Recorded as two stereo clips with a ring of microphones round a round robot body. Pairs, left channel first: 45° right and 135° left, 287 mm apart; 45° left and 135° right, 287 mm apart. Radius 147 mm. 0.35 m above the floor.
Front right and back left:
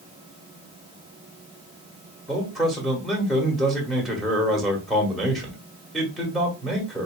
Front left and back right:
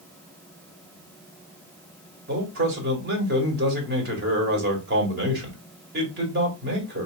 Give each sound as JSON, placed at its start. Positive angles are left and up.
{"t": 2.3, "sound": "a man speaking", "azimuth_deg": -135, "distance_m": 1.6}